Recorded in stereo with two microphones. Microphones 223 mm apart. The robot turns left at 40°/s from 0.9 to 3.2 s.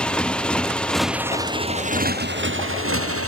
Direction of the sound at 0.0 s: 5° left.